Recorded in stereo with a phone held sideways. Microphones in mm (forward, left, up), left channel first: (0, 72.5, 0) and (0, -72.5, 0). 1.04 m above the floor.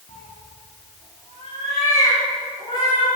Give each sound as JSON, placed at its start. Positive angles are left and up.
{"t": 0.1, "sound": "a cat meowing", "side_deg": 60, "distance_m": 5.5}